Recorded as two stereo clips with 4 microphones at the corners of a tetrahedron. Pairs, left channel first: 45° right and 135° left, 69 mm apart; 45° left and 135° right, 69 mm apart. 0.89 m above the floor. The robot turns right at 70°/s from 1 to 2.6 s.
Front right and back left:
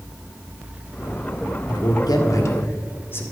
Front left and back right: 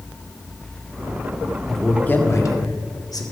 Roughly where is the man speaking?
Ahead right.